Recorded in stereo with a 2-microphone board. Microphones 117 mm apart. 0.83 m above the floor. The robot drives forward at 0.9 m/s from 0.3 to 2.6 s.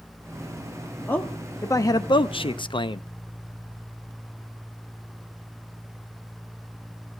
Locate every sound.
1.1 s a man speaking: 15° left (ahead or behind), 1.3 m; by 3.0 s 45° left (ahead or behind), 0.5 m